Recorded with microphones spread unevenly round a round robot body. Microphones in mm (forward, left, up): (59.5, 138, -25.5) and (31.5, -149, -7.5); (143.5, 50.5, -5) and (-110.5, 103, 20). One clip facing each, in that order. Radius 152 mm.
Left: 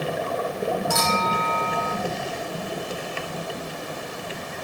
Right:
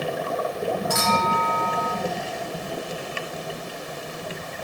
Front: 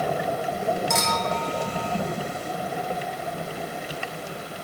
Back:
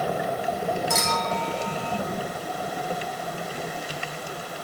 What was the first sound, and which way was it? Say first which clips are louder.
A clink: right 1 dB, front 1 dB; 80° left.